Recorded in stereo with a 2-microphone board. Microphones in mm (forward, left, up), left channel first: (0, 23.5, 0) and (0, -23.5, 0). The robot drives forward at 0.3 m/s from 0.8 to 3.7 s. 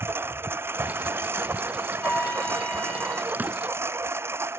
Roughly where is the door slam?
Right.